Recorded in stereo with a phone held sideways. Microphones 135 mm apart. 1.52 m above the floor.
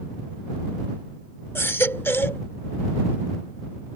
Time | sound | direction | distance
1.6 | a baby crying | 15° left (ahead or behind) | ?